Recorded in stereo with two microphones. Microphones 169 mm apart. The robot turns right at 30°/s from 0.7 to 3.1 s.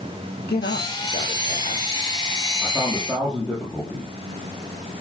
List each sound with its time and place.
0.5 s a man speaking: 105° left, 4 m; by 1.9 s 140° left, 4 m
2.6 s a man speaking: 10° left (ahead or behind), 6 m; by 4.1 s 5° right (ahead or behind), 6 m